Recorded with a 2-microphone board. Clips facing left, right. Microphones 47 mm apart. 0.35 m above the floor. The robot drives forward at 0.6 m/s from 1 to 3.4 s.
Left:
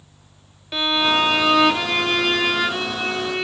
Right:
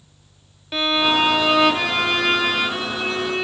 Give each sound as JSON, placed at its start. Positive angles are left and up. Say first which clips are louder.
{"t": 0.7, "sound": "a violin", "louder": "even", "side_deg": -5, "distance_m": 1.1}